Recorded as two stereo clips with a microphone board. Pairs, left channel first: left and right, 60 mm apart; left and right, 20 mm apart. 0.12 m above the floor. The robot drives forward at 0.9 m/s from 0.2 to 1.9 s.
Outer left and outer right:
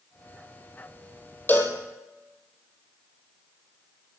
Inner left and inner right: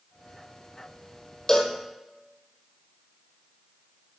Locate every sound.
1.5 s a cowbell: 30° left (ahead or behind), 1.2 m; by 1.8 s 40° left (ahead or behind), 1.0 m